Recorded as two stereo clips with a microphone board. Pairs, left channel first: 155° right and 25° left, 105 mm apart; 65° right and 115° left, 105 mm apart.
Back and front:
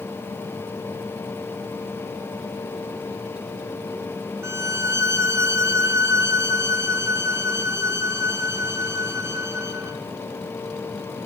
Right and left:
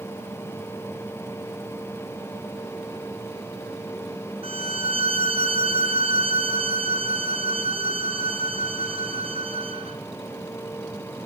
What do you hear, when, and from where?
4.4 s a violin: 85° left, 2.5 m